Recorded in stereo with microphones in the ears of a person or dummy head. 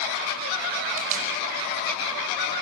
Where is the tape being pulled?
40° right (ahead or behind), 5.5 m.